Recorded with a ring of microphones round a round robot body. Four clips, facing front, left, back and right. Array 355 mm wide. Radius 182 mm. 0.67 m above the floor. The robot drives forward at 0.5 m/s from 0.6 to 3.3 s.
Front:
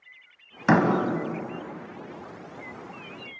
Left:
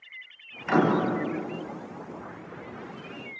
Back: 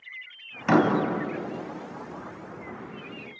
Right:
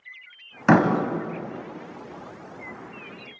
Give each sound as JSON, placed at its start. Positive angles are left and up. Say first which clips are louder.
{"t": 0.7, "sound": "a door slam", "louder": "right 4 dB, even", "azimuth_deg": -70, "distance_m": 3.0}